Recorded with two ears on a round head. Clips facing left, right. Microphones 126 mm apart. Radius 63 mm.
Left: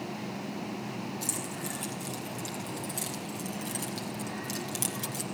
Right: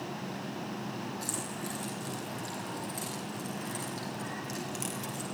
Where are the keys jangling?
25° left (ahead or behind), 8.5 m; by 5.3 s 45° left (ahead or behind), 4.5 m.